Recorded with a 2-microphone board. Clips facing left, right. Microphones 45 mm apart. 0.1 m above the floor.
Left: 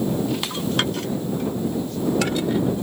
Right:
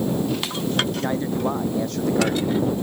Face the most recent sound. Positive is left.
turn(degrees=-75)  # may be behind; listen again after turning